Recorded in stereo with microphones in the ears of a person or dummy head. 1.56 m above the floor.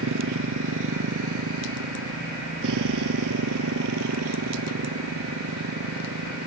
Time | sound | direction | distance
0.0 | a motorcycle | 60° right (ahead or behind) | ?